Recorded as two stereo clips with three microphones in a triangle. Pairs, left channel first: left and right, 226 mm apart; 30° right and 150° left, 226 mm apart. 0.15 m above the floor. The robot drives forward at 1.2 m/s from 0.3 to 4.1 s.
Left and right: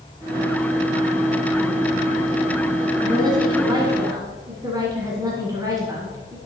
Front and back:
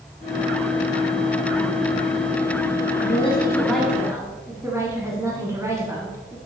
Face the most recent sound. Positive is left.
turn(degrees=-145)